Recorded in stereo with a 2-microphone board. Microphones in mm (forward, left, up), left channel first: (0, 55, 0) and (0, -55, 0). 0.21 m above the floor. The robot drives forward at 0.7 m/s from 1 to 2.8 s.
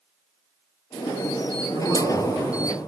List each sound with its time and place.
1.7 s a man speaking: 45° right (ahead or behind), 3 m; by 2.9 s 50° right (ahead or behind), 2.5 m